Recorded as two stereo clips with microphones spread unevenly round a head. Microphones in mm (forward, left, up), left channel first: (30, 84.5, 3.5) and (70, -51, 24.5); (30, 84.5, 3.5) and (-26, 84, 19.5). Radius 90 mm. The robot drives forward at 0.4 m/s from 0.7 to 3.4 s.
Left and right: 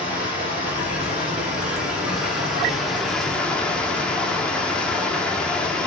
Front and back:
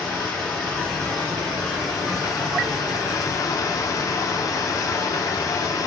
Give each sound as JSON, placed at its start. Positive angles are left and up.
{"t": 0.0, "sound": "running water", "azimuth_deg": 5, "distance_m": 1.6}